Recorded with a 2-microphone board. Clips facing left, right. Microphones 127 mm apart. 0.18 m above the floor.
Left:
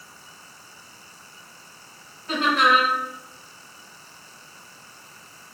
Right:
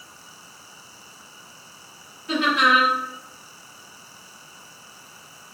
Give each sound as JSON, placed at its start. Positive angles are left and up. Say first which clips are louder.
{"t": 2.3, "sound": "laughter", "louder": "even", "side_deg": 35, "distance_m": 1.6}